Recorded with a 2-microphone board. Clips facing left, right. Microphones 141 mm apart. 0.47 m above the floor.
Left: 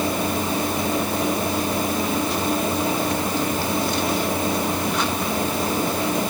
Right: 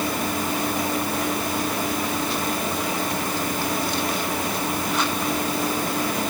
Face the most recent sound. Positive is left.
No sound to turn to.